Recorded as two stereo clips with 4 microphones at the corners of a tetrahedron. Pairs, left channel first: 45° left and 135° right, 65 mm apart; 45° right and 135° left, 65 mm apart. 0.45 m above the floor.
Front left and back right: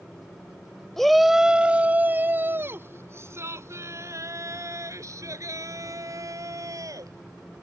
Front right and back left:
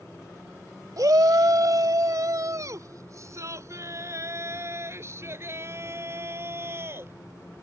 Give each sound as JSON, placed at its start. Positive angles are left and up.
{"t": 1.0, "sound": "a shout", "azimuth_deg": 130}